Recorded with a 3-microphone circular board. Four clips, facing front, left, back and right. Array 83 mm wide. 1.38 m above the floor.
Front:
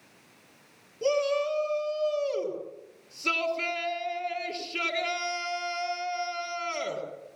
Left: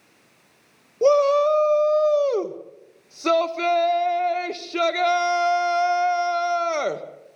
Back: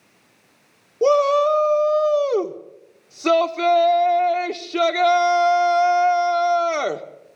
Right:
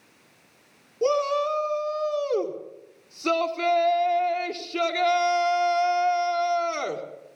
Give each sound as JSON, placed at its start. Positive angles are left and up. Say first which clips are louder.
{"t": 1.0, "sound": "a shout", "louder": "left 7 dB, back 10 dB", "azimuth_deg": 150, "distance_m": 1.7}